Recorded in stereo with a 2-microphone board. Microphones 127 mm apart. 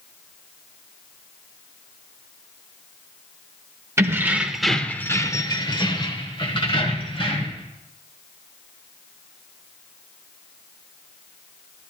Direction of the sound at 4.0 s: 20° right (ahead or behind).